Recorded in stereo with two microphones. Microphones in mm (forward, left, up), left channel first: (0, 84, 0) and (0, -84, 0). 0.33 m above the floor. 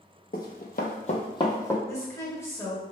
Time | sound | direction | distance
0.3 | running footsteps | 65° left (ahead or behind) | 0.7 m
1.9 | a woman speaking | 15° left (ahead or behind) | 0.9 m